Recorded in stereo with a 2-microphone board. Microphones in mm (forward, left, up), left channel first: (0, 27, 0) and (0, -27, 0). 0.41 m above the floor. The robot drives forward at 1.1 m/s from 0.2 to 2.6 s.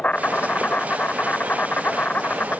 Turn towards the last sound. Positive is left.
turn(degrees=35)  # may be behind; listen again after turning